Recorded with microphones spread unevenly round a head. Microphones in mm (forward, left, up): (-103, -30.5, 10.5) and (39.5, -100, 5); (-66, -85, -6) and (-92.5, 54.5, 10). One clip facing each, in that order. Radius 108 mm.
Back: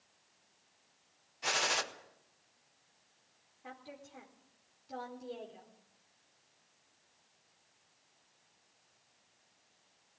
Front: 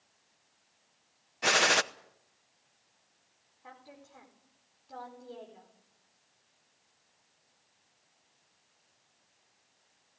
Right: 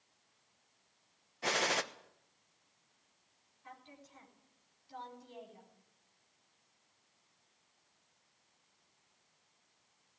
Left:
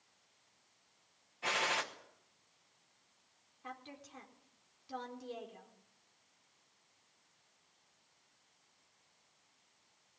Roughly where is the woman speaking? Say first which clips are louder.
Back 2 dB, left 5 dB; left.